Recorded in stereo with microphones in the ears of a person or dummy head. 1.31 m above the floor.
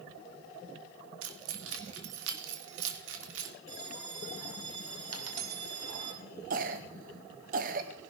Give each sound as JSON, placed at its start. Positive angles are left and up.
{"t": 1.2, "sound": "keys jangling", "side_deg": -85, "distance_m": 1.9}
{"t": 3.7, "sound": "a bell", "side_deg": -80, "distance_m": 8.5}
{"t": 5.1, "sound": "a dropped coin", "side_deg": -70, "distance_m": 2.0}
{"t": 6.5, "sound": "a cough", "side_deg": -50, "distance_m": 0.7}